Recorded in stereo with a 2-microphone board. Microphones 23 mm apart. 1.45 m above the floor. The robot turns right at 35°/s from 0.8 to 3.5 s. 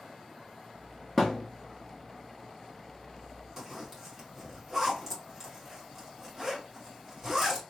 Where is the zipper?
5° right (ahead or behind), 1.6 m.